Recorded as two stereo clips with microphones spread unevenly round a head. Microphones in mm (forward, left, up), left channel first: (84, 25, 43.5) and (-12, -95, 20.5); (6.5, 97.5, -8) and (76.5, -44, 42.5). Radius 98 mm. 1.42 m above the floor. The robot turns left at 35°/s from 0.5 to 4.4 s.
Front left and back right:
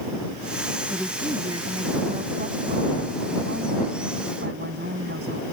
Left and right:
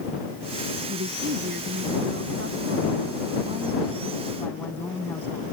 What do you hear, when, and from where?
0.9 s a woman speaking: 40° right; by 5.4 s 160° right